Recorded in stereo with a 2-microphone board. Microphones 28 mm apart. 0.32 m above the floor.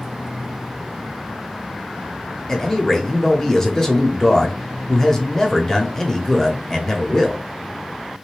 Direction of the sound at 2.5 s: 15° left (ahead or behind).